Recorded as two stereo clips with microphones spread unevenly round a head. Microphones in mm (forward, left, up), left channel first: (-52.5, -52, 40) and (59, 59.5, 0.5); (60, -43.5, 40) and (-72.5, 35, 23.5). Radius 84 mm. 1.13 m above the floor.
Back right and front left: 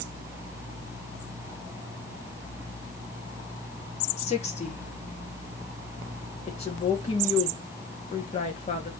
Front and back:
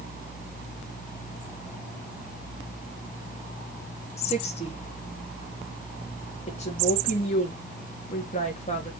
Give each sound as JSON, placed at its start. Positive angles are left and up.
{"t": 4.2, "sound": "a woman speaking", "azimuth_deg": -80, "distance_m": 2.5}
{"t": 6.5, "sound": "a woman speaking", "azimuth_deg": -80, "distance_m": 2.5}